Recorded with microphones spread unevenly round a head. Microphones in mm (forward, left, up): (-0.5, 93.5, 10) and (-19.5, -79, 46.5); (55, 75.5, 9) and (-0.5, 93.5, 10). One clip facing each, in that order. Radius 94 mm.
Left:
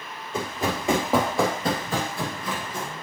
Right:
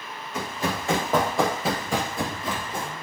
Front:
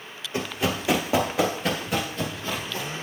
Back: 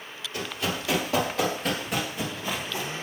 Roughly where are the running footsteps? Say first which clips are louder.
Left 2 dB, front 4 dB; ahead.